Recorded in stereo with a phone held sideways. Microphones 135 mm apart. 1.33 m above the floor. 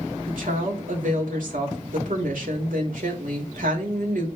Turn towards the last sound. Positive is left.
turn(degrees=-85)